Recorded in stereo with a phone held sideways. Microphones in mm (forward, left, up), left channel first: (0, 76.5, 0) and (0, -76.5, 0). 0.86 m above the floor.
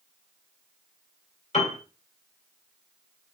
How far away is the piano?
About 1.7 m.